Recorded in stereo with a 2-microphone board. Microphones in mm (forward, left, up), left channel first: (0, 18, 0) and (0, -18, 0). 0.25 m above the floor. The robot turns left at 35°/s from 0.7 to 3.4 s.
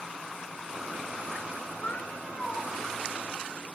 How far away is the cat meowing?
About 1.2 m.